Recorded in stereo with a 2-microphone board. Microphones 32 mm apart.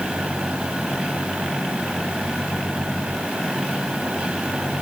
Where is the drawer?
No drawer in this recording.